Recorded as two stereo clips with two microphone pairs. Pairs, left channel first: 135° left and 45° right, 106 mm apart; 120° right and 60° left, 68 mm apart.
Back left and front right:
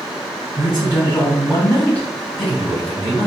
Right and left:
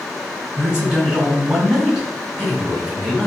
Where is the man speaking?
10° right, 1.9 m.